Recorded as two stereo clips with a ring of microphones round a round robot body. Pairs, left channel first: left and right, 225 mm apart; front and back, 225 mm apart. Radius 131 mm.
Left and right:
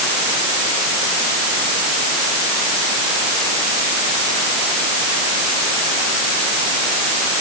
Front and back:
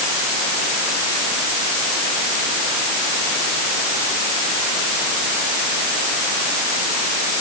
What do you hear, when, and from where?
Only background noise.